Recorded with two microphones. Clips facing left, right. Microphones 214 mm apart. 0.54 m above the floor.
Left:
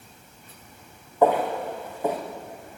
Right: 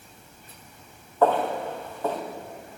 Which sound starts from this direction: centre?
Footsteps, at 1.2 s.